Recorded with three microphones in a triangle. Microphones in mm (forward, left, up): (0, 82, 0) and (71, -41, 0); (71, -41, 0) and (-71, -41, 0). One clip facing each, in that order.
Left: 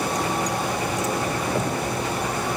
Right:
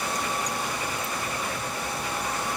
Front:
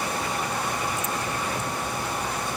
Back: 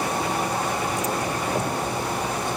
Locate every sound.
0.0 s a vehicle: 125° left